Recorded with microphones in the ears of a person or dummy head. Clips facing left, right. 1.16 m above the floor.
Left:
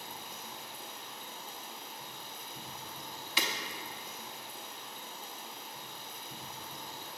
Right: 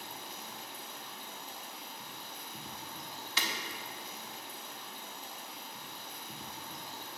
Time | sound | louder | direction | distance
0.0 | running water | even | 65° right (ahead or behind) | 2.5 m
3.4 | breaking glass | left 3 dB | 20° left (ahead or behind) | 1.0 m